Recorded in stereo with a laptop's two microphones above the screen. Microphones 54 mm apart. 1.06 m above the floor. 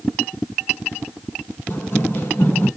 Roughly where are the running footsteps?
Left.